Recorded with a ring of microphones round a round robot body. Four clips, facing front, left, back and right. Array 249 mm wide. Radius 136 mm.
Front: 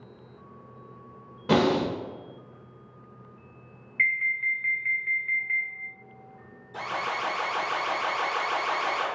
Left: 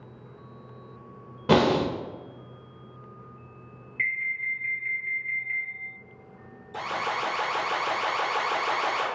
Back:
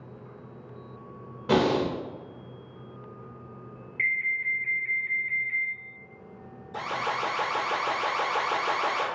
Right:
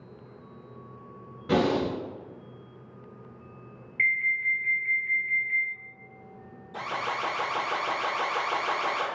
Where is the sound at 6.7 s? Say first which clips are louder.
Left 2 dB, back 1 dB; 145° left, 1.4 m.